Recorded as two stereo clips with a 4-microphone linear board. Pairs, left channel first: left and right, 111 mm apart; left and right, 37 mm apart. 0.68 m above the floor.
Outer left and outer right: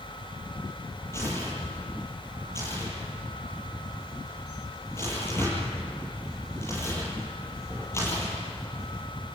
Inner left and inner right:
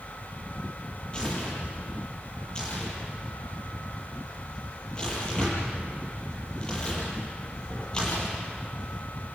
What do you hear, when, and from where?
1.1 s tearing paper: 25° left (ahead or behind), 7 m